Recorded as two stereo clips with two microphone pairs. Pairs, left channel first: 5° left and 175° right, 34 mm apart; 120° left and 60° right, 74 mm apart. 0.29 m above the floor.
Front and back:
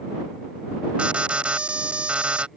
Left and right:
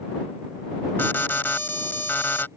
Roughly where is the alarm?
Behind.